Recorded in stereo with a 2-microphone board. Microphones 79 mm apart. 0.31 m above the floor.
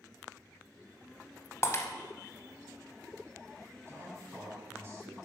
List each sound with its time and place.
1.6 s breaking glass: 40° left (ahead or behind), 0.9 m
3.9 s a man speaking: 40° right (ahead or behind), 2.5 m